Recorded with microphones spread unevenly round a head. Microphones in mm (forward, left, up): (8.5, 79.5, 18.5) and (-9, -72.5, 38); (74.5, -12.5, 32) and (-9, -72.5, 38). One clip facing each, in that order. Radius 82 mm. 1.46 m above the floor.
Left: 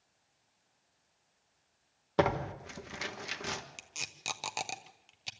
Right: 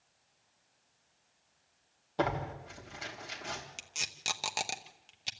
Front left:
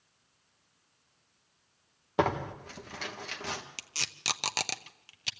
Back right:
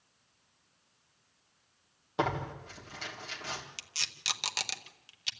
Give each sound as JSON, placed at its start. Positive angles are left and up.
{"t": 2.2, "sound": "tearing paper", "azimuth_deg": 90, "distance_m": 1.6}
{"t": 3.8, "sound": "tape being pulled", "azimuth_deg": -5, "distance_m": 0.9}